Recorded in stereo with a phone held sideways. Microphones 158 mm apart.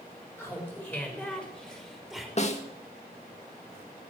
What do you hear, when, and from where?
0.4 s laughter: 15° left (ahead or behind), 6 m; by 2.3 s centre (ahead or behind), 5 m
2.4 s a snare drum: 45° left (ahead or behind), 2.0 m